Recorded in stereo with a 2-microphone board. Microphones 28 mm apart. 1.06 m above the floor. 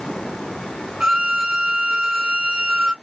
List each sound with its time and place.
1.0 s a violin: 35° right (ahead or behind), 2 m